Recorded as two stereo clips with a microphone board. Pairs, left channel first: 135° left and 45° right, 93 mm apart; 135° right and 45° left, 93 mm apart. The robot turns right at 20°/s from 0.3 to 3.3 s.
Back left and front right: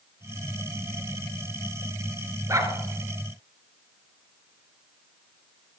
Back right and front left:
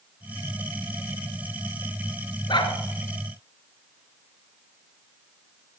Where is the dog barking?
100° right, 1.7 m; by 2.8 s 95° right, 1.7 m.